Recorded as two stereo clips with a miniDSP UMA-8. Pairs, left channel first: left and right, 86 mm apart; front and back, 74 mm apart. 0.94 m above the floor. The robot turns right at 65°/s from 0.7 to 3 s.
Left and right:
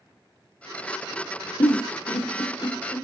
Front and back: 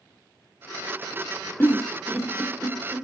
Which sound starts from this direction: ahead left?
A giggle, at 1.6 s.